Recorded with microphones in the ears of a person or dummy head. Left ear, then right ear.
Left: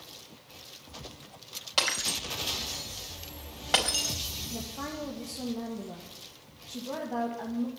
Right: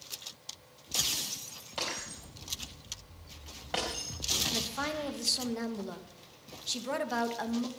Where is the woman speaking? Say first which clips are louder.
Right 4 dB; 60° right (ahead or behind), 2 m.